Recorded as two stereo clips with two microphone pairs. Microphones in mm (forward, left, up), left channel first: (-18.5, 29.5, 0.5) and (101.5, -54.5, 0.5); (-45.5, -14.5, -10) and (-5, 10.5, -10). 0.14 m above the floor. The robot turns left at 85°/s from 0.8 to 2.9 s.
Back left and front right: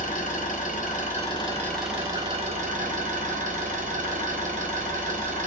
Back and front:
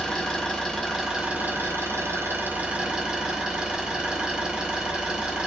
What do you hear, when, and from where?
0.0 s an engine running: 135° left, 1.2 m; by 5.5 s 45° right, 1.2 m